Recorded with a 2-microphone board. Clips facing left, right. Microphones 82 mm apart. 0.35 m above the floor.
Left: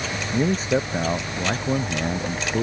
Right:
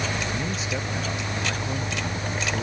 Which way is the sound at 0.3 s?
40° left (ahead or behind).